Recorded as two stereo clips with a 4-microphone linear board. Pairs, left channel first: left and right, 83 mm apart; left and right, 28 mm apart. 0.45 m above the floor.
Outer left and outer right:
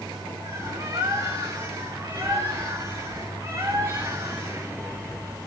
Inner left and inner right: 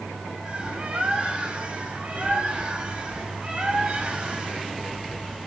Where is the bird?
40° right (ahead or behind), 2.0 m.